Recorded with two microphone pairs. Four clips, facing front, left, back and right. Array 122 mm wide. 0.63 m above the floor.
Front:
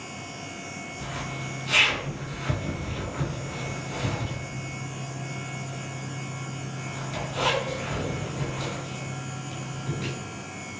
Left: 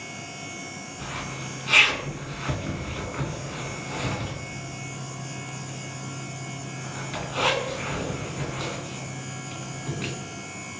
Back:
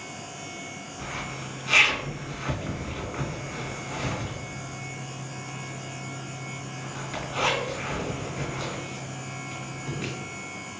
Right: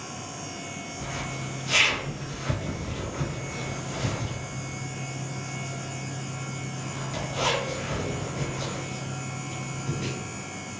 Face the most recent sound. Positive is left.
turn(degrees=120)